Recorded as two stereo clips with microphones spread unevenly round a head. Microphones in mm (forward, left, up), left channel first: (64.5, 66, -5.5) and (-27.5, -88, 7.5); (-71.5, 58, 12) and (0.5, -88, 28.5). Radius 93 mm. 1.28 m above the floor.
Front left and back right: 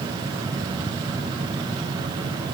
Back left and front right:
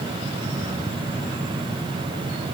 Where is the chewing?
I don't hear chewing.